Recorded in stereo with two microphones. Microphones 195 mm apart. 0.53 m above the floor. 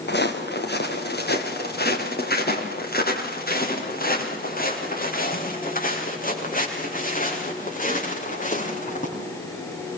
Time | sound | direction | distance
0.1 | footsteps | 60° left (ahead or behind) | 5 m